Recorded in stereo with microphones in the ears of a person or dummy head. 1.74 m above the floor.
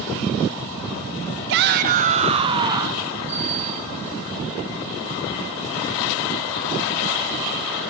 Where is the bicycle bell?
15° right (ahead or behind), 6.5 m.